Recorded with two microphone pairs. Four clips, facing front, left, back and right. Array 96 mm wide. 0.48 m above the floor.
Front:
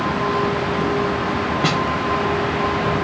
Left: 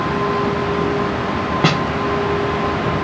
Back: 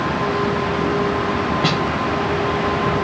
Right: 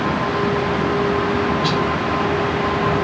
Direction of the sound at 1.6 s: 80° left.